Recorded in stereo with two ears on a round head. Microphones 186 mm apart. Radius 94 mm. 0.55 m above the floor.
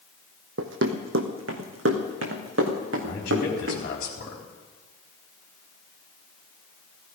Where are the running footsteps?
70° right (ahead or behind), 1.5 m; by 3.8 s 65° right (ahead or behind), 4 m.